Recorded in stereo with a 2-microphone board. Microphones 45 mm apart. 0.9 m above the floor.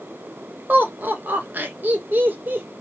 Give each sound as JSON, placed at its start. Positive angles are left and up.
{"t": 0.7, "sound": "laughter", "side_deg": -45, "distance_m": 1.0}